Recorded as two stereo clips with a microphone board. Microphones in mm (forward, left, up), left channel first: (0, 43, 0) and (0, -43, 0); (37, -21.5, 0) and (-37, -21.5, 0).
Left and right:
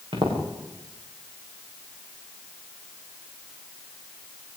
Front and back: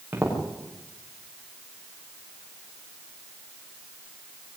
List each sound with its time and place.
0.1 s footsteps: 110° right, 8 m